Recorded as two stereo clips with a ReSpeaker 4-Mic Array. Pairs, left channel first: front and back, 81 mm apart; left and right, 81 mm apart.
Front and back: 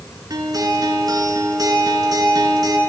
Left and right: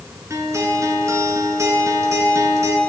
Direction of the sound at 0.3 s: 140° right.